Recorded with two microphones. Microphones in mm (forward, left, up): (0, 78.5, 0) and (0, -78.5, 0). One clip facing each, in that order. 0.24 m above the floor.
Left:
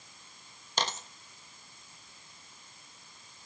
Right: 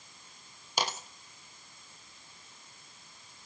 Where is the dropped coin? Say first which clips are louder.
Even; 10° right (ahead or behind), 0.9 m.